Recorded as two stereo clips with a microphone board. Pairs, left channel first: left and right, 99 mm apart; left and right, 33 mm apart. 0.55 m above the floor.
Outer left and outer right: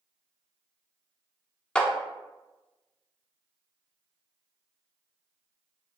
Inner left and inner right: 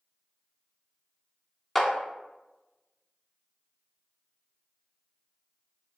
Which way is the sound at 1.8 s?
10° left (ahead or behind).